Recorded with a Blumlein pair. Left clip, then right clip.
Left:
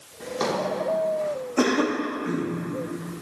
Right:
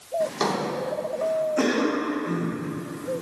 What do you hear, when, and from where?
0.2 s a drawer: 5° right, 2.5 m
1.6 s a cough: 15° left, 2 m